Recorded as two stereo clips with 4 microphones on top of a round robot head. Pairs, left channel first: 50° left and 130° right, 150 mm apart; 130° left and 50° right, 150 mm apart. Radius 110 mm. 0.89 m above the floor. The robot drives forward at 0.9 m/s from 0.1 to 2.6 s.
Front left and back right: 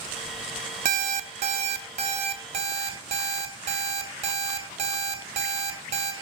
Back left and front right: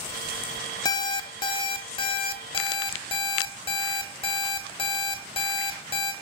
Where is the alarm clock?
165° right, 0.8 m; by 6.1 s 175° right, 2.5 m.